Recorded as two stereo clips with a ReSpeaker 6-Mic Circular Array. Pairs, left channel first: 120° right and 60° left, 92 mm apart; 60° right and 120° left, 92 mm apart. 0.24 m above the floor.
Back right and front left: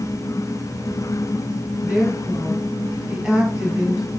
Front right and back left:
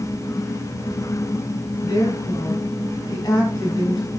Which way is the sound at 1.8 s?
20° right.